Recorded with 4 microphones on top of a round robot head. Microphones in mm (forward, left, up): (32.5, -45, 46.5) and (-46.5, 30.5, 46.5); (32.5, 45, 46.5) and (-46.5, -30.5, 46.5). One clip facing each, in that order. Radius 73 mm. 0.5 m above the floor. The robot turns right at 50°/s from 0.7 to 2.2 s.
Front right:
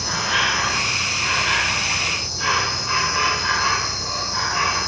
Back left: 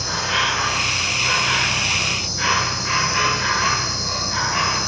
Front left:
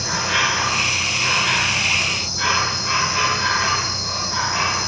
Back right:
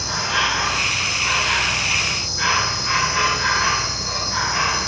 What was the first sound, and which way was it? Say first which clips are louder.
An insect: even, front left 1 dB; 45° left.